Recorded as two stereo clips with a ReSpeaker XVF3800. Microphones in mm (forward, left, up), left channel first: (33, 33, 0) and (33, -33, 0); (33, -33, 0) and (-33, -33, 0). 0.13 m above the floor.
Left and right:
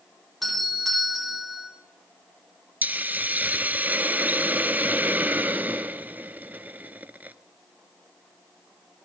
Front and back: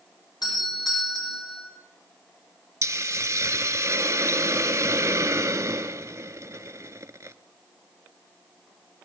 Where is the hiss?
150° right, 1.1 m.